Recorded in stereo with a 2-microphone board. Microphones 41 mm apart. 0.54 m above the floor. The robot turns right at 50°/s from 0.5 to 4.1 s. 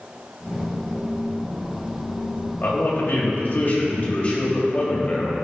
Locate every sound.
2.6 s a man speaking: 65° left, 2.5 m; by 5.3 s 140° left, 2.5 m